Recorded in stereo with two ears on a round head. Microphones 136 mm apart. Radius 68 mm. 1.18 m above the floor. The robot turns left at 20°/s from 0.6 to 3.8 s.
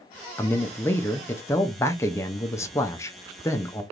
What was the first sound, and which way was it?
A man speaking, 15° left (ahead or behind).